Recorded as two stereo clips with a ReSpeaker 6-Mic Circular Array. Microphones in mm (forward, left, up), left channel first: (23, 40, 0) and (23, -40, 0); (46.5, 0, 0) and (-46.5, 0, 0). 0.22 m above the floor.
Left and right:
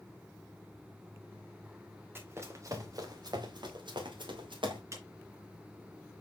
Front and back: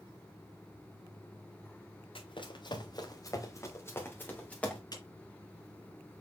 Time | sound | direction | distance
2.1 | running footsteps | 25° right | 2.0 m
4.9 | a clap | 40° right | 2.5 m